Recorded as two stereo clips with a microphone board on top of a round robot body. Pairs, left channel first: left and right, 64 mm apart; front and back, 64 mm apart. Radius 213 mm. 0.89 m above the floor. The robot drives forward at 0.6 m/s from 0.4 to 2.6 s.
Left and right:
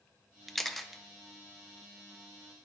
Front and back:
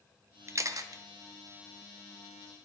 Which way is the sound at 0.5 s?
175° left.